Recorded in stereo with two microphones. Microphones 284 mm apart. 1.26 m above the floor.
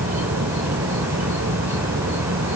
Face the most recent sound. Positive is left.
turn(degrees=-60)  # may be behind; listen again after turning